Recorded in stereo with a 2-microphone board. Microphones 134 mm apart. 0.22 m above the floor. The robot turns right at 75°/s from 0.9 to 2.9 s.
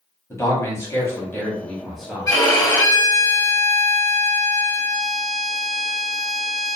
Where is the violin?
25° left (ahead or behind), 0.5 m.